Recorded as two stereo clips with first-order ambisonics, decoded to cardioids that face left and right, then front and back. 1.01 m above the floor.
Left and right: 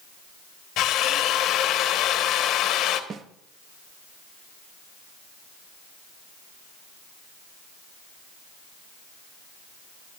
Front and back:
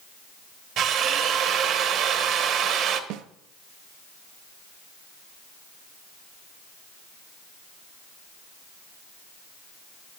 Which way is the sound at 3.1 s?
155° right.